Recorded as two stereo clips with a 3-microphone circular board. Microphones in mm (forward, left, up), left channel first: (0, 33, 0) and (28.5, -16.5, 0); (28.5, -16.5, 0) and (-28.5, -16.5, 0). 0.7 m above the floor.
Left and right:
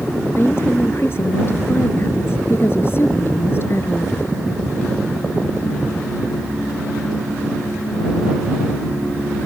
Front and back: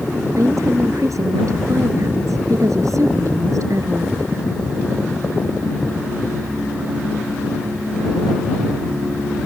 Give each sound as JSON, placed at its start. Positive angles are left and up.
{"t": 0.4, "sound": "a woman speaking", "azimuth_deg": 165}